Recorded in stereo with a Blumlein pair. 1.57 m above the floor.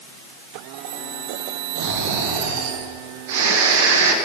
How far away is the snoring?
About 1.9 m.